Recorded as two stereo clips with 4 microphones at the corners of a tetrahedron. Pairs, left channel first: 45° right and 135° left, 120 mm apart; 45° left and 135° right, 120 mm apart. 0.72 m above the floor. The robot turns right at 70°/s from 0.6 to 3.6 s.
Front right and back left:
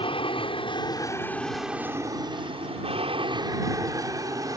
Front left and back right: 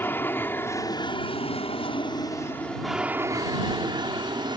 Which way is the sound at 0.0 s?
25° right.